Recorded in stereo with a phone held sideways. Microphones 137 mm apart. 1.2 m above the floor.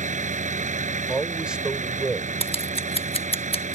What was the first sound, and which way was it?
A vehicle, 70° right (ahead or behind).